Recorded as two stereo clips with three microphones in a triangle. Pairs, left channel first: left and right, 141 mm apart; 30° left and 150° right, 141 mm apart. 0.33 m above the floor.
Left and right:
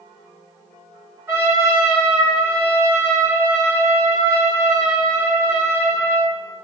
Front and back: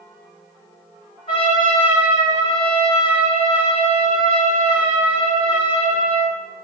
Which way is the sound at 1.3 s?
20° right.